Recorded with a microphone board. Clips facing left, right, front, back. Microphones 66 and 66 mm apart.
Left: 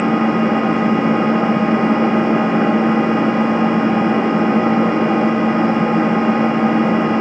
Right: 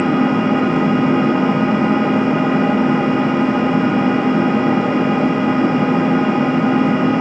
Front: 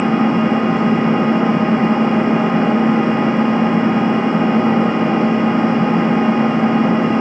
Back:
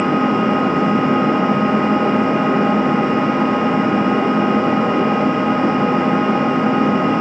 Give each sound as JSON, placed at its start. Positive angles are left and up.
{"t": 0.0, "sound": "an engine running", "azimuth_deg": 40, "distance_m": 1.4}